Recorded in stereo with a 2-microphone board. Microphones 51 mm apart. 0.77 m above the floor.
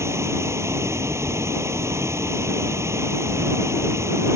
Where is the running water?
65° right (ahead or behind).